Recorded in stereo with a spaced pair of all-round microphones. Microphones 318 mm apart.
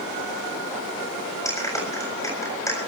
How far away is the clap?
About 7 m.